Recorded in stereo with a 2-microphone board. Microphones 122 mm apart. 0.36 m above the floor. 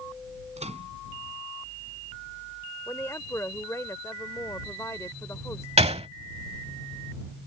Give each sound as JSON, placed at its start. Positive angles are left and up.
{"t": 0.6, "sound": "a microwave", "side_deg": -75}
{"t": 2.9, "sound": "a woman speaking", "side_deg": 25}
{"t": 5.8, "sound": "a gunshot", "side_deg": -65}